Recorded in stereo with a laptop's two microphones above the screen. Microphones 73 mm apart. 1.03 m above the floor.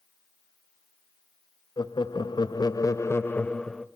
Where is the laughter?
85° left, 1.1 m; by 3.9 s 5° left (ahead or behind), 0.9 m.